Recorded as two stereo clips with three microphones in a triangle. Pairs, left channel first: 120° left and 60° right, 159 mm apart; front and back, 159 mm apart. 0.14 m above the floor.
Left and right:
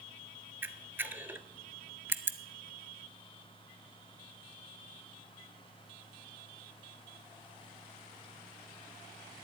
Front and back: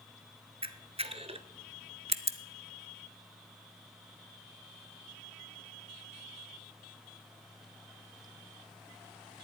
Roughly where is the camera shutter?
Behind right.